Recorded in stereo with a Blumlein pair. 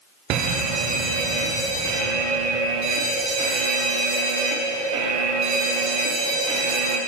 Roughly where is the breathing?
No breathing in this recording.